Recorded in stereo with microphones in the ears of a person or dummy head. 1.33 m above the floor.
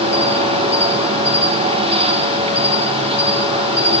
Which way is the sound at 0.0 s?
30° right (ahead or behind).